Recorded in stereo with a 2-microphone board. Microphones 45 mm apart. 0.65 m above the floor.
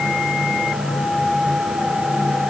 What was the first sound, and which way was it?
Only background noise.